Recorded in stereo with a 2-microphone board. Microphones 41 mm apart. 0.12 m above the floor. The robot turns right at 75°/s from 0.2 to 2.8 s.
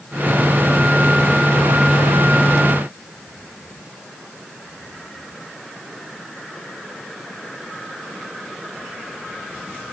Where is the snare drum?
No snare drum in this recording.